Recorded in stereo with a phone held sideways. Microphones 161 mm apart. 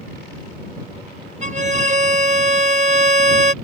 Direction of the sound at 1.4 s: 45° right (ahead or behind).